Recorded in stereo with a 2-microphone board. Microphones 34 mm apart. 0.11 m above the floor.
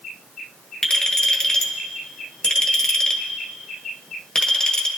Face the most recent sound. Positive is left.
turn(degrees=20)  # may be behind; listen again after turning